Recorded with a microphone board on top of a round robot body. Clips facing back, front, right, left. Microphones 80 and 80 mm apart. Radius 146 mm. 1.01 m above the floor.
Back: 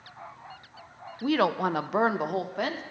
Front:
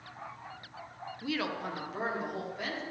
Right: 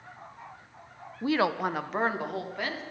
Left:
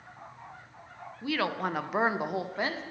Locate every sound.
1.2 s a woman speaking: 135° right, 0.5 m; by 2.8 s 155° left, 1.3 m